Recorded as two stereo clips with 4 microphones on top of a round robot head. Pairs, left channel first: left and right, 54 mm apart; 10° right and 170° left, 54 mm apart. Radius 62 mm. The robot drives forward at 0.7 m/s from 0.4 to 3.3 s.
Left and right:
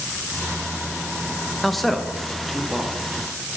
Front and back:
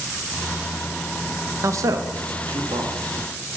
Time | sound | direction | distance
1.6 | a man speaking | straight behind | 0.6 m